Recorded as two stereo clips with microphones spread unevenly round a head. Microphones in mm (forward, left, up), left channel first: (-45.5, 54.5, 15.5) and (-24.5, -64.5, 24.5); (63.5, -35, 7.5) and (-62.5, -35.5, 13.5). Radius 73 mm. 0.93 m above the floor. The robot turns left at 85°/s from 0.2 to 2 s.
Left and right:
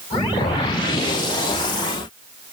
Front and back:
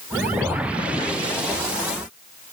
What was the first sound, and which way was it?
Only background noise.